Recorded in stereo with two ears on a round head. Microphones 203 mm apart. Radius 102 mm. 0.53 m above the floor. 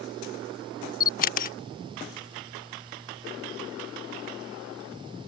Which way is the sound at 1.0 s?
40° left (ahead or behind).